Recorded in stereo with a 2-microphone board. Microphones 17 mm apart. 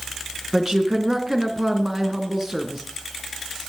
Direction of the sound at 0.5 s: 30° right (ahead or behind).